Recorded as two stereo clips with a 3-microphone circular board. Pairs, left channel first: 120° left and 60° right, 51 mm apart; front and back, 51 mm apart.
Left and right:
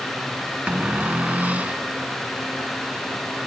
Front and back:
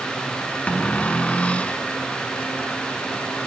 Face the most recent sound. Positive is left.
turn(degrees=-35)